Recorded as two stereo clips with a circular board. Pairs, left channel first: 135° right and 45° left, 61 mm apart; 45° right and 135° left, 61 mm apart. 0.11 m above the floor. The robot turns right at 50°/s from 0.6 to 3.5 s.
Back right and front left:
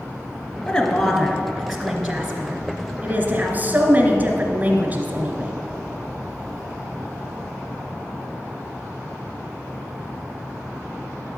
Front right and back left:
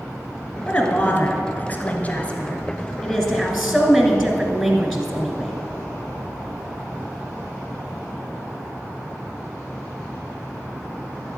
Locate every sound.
0.7 s a woman speaking: 105° right, 1.7 m; by 5.5 s 40° left, 1.7 m